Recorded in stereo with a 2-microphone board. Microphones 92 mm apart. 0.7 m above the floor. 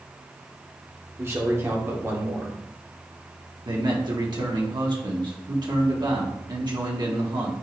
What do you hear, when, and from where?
1.2 s a man speaking: 30° right (ahead or behind), 1.7 m
3.6 s a man speaking: 55° right (ahead or behind), 1.7 m